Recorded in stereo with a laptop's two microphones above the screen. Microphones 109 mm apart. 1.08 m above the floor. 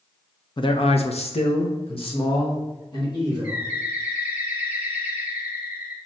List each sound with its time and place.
0.6 s a man speaking: 45° left (ahead or behind), 0.6 m; by 3.6 s 40° left (ahead or behind), 2 m
3.4 s a bird: 15° right (ahead or behind), 0.8 m